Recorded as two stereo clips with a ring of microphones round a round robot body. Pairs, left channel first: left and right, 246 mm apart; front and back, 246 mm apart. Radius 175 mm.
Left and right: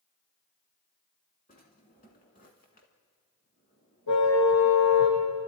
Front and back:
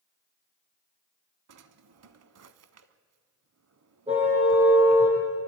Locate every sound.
1.5 s a drawer: 160° left, 0.8 m
4.1 s a car horn: 115° left, 9 m